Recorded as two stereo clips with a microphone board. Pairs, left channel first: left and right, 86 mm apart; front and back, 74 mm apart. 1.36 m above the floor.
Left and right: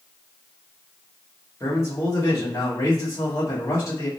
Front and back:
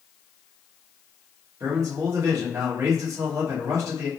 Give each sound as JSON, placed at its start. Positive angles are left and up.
{"t": 1.6, "sound": "a man speaking", "azimuth_deg": 140, "distance_m": 1.8}